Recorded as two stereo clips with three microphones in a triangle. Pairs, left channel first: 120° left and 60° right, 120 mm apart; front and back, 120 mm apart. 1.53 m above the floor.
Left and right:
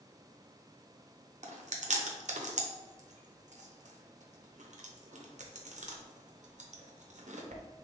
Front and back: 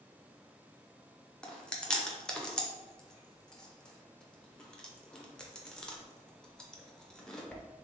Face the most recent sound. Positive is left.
turn(degrees=-85)